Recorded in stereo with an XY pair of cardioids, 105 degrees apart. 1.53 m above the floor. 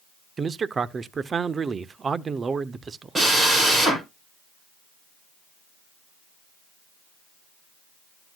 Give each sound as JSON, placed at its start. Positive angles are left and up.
{"t": 0.4, "sound": "a man speaking", "azimuth_deg": -40, "distance_m": 0.6}
{"t": 3.1, "sound": "a drill", "azimuth_deg": -25, "distance_m": 8.0}